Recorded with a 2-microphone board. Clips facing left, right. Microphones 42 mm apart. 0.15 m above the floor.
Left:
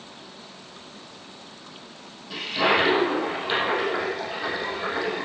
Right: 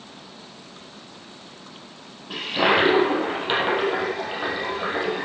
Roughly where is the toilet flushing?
Right.